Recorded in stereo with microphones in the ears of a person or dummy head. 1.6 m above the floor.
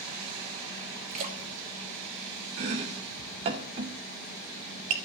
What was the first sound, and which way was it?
A splash, 45° right (ahead or behind).